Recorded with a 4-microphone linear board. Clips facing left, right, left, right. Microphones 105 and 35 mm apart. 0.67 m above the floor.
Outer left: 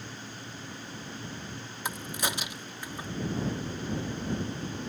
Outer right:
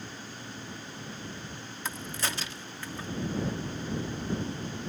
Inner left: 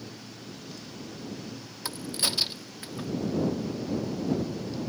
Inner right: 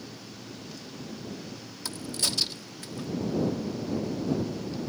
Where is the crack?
15° left (ahead or behind).